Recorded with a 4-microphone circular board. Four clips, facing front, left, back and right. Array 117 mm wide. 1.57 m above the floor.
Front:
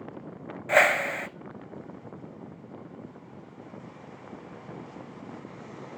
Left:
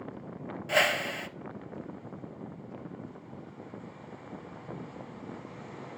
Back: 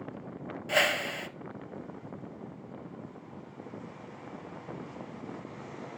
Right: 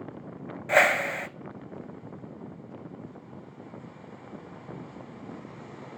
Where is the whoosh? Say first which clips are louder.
Right 5 dB, front 7 dB; 45° right, 0.5 m.